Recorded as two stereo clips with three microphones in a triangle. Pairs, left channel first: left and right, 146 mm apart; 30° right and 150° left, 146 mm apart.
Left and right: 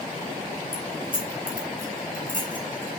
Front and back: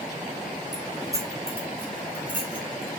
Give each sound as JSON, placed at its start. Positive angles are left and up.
{"t": 0.7, "sound": "keys jangling", "azimuth_deg": 90, "distance_m": 3.0}